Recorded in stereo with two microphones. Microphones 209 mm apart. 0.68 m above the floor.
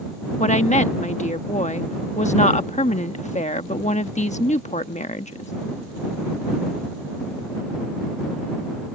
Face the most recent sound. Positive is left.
turn(degrees=35)  # may be behind; listen again after turning